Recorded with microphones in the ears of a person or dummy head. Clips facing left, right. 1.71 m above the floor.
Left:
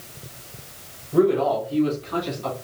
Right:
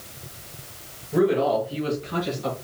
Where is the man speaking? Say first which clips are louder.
Left 2 dB; 15° right (ahead or behind), 3.5 m; by 2.5 s 10° right (ahead or behind), 2.0 m.